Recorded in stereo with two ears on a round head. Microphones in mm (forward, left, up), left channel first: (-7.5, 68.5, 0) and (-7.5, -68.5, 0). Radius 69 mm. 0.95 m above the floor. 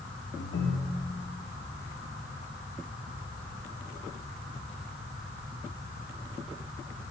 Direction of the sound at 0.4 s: 70° left (ahead or behind).